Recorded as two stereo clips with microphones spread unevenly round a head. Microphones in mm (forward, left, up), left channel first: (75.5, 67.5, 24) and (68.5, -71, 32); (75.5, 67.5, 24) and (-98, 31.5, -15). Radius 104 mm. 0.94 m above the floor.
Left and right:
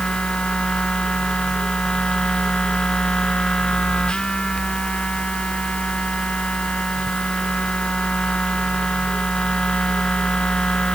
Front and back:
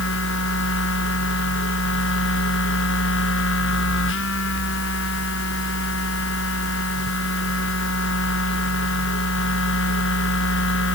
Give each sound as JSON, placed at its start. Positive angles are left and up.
{"t": 0.0, "sound": "a machine running", "azimuth_deg": 5}